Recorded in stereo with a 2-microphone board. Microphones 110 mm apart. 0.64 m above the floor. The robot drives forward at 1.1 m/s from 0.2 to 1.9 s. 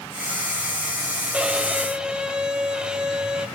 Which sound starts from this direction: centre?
A violin, at 1.3 s.